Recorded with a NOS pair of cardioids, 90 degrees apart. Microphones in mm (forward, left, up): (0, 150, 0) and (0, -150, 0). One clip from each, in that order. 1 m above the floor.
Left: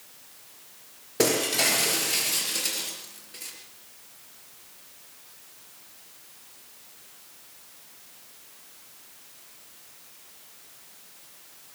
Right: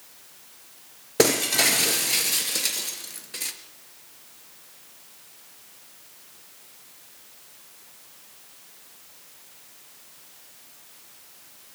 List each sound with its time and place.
1.2 s breaking glass: 60° right, 3.5 m